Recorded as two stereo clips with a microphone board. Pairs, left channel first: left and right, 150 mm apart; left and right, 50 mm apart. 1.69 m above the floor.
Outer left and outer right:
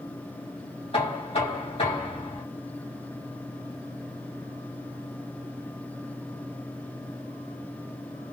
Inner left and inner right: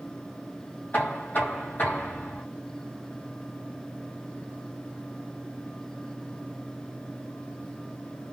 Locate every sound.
0.9 s knocking: 40° left (ahead or behind), 3 m